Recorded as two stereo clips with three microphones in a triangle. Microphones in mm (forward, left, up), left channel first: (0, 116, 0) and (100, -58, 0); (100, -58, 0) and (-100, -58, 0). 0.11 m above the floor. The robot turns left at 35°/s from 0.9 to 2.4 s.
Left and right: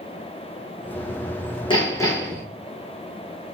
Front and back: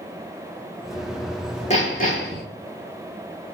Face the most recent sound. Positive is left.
turn(degrees=30)